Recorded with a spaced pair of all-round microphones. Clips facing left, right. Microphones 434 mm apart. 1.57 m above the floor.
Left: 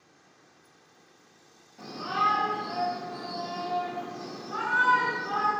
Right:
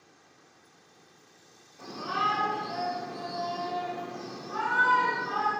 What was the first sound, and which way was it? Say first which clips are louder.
A shout: left 1 dB; 90° left.